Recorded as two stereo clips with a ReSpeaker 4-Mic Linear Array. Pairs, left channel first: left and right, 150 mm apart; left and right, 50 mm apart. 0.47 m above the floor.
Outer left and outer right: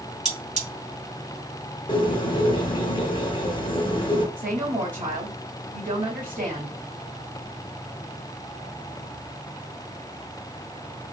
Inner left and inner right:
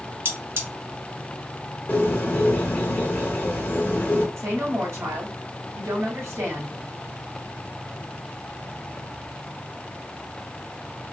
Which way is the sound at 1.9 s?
35° left (ahead or behind).